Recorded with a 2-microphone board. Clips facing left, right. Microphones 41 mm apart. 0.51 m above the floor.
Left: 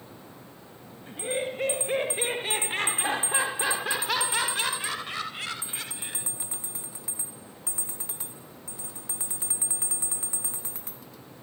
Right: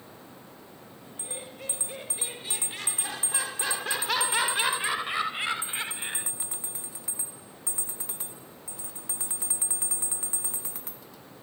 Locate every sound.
1.1 s laughter: 55° left (ahead or behind); by 6.3 s 30° right (ahead or behind)